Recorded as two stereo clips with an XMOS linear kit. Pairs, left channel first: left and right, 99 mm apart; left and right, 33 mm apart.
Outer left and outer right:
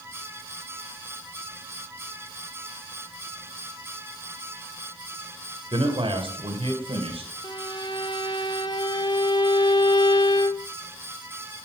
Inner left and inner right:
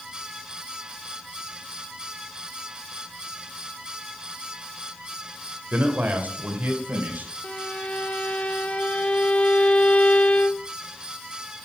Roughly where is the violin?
Left.